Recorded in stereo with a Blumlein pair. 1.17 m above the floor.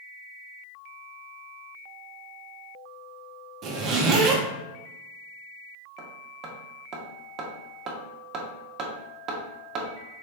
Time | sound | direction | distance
3.6 | a zipper | 30° right | 0.9 m
6.0 | hammering | 35° right | 1.0 m